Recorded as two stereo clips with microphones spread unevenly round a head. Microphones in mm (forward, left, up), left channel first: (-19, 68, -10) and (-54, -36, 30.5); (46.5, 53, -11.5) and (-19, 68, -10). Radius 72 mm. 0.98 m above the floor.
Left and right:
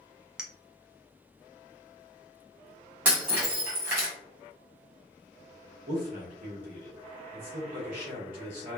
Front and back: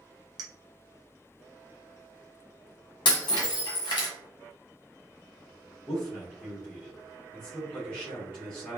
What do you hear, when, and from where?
0.4 s a clink: straight behind, 0.5 m
3.0 s breaking glass: 35° right, 1.3 m
5.9 s a man speaking: 90° right, 1.6 m